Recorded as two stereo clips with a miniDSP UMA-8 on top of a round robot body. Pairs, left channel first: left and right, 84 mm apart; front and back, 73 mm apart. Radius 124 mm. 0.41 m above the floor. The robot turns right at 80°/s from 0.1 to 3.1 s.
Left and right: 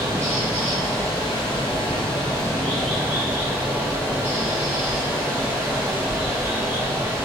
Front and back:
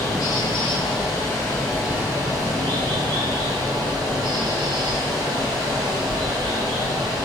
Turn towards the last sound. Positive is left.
turn(degrees=-165)